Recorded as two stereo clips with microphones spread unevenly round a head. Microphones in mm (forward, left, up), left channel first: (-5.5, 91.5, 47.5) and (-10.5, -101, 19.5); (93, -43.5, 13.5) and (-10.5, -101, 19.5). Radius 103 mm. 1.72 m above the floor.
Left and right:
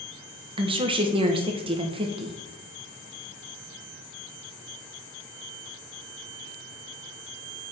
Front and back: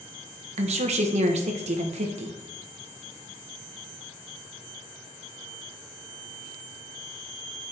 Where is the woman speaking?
160° right, 1.2 m.